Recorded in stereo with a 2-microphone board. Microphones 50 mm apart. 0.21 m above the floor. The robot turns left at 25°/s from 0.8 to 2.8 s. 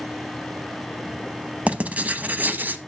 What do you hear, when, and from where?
1.7 s writing: 25° right (ahead or behind), 0.9 m; by 2.8 s 40° right (ahead or behind), 0.9 m